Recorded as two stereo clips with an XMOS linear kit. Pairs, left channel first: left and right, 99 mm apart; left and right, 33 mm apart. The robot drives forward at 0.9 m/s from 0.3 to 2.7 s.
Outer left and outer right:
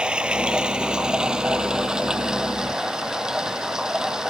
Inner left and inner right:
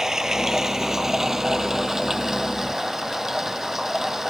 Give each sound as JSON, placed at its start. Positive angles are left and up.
{"t": 0.0, "sound": "running water", "side_deg": -10}